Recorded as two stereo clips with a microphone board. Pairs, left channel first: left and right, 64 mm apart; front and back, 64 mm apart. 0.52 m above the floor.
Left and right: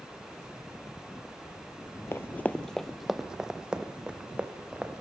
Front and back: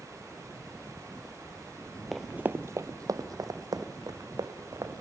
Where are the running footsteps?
90° left, 0.6 m; by 5.0 s 160° right, 2.5 m.